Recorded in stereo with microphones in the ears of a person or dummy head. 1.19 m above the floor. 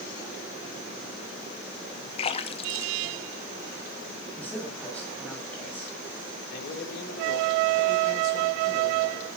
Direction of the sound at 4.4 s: 10° left (ahead or behind).